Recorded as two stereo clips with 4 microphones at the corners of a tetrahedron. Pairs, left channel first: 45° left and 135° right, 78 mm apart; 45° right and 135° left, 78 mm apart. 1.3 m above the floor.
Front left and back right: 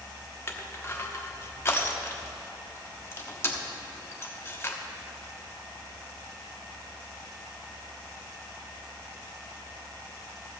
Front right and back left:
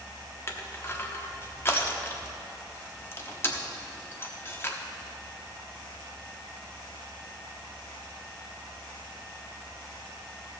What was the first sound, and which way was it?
Crushing, 5° left.